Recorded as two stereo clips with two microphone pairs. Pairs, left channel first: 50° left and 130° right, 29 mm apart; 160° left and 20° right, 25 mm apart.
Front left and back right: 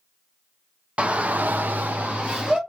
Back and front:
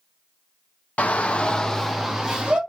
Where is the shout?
Straight behind, 0.6 m; by 2.6 s 85° right, 0.9 m.